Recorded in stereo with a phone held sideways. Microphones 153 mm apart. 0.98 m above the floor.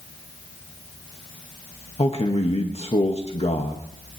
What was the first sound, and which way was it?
A man speaking, 40° left (ahead or behind).